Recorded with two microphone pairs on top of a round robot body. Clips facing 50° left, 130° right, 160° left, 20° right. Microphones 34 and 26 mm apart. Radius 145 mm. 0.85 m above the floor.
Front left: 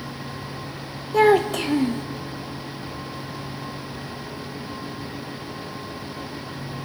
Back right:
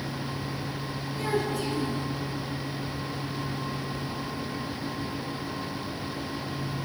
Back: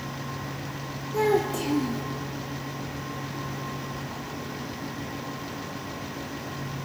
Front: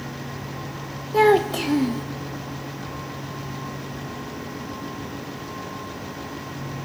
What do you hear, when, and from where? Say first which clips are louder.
1.1 s a child speaking: front left 13 dB, front 7 dB; 25° left, 0.6 m